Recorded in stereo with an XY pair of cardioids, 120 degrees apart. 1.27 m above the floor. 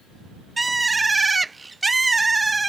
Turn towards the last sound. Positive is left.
turn(degrees=-15)